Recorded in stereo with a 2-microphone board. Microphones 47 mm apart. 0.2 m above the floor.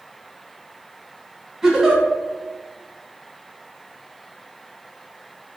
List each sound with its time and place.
1.6 s a giggle: 15° right (ahead or behind), 0.6 m